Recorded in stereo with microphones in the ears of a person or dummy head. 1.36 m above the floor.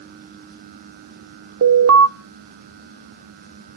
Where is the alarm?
90° right, 0.6 m.